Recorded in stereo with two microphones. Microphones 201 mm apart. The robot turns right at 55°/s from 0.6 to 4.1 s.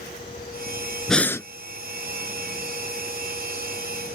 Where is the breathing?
Centre (ahead or behind); by 1.5 s 15° left (ahead or behind).